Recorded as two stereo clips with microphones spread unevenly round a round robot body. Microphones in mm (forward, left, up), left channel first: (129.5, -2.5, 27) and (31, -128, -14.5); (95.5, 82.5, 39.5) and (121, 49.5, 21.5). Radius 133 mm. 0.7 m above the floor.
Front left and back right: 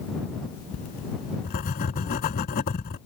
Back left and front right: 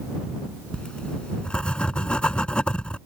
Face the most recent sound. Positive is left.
turn(degrees=75)